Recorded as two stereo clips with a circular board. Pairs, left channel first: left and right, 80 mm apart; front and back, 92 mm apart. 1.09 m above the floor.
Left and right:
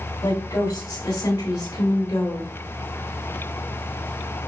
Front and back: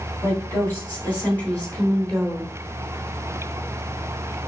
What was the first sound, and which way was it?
A woman speaking, 60° left.